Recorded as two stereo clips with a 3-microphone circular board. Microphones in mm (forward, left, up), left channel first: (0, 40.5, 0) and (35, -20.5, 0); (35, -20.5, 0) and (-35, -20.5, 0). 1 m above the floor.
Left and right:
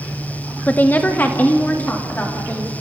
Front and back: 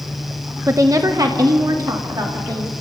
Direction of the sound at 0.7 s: 170° left.